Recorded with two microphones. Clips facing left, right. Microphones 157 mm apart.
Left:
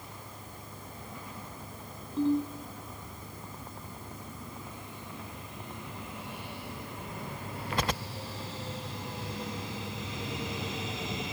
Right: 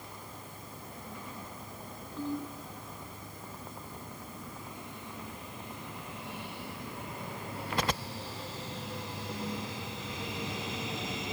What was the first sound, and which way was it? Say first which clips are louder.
A ringtone: left 9 dB; 30° left (ahead or behind).